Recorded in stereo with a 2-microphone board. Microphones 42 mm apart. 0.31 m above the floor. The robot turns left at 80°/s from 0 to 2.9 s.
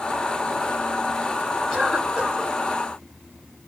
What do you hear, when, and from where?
1.7 s a cough: 10° left, 2 m; by 2.5 s 55° right, 2 m